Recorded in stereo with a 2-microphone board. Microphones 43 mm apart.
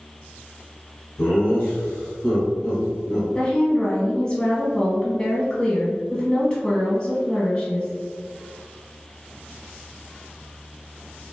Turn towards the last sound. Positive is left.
turn(degrees=20)  # may be behind; listen again after turning